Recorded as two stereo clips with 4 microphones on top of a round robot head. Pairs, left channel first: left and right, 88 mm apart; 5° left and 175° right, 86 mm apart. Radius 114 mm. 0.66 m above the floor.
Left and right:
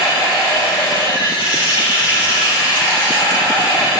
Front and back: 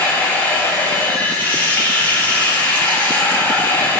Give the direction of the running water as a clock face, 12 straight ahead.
10 o'clock.